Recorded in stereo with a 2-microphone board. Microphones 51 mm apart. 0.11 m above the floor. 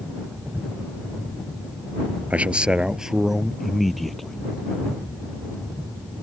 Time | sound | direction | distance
2.3 | a man speaking | 30° right (ahead or behind) | ?